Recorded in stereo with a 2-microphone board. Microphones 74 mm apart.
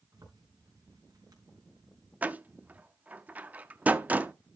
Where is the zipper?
55° right (ahead or behind), 4 m.